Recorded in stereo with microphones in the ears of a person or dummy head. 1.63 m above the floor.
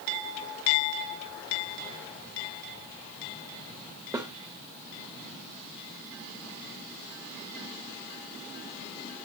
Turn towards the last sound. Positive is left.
turn(degrees=-20)  # may be behind; listen again after turning